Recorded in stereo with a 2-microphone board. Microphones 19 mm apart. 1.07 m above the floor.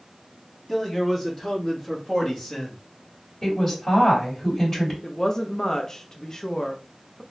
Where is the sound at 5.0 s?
30° left (ahead or behind), 0.6 m.